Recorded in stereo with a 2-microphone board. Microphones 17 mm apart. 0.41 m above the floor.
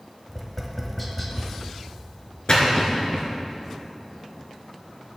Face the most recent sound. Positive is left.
turn(degrees=55)  # may be behind; listen again after turning